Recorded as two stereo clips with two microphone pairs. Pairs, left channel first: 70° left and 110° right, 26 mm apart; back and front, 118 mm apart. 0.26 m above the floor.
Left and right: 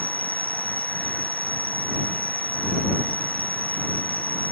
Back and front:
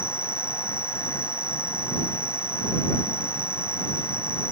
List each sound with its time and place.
0.0 s an insect: 80° left